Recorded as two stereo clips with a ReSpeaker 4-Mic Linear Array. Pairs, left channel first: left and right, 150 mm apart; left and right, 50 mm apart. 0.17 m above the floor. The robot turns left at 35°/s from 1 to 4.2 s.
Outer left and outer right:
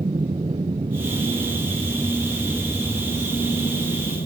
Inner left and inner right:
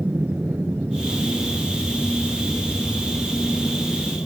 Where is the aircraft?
135° right; by 4.3 s 110° left.